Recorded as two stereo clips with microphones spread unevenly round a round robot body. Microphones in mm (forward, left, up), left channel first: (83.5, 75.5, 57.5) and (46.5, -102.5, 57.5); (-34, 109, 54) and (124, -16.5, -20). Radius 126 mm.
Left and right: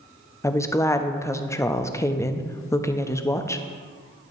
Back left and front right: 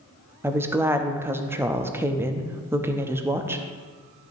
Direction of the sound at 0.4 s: 10° left.